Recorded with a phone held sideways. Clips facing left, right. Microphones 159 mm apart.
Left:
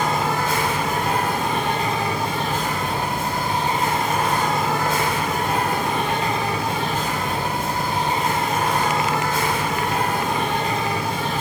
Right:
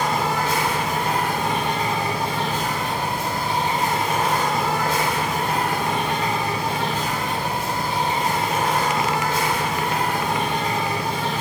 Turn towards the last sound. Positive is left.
turn(degrees=50)  # may be behind; listen again after turning